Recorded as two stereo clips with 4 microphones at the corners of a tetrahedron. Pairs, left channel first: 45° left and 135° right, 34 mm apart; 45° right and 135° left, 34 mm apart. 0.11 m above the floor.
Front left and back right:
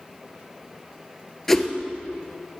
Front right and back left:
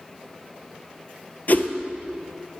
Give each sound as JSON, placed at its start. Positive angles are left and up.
{"t": 1.5, "sound": "a whoosh", "azimuth_deg": -30, "distance_m": 0.8}